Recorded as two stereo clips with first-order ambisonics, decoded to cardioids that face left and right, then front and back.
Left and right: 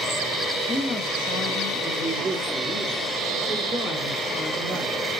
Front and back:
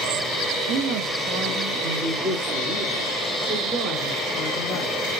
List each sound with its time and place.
0.7 s a man speaking: 175° left, 0.6 m; by 5.0 s 150° left, 3 m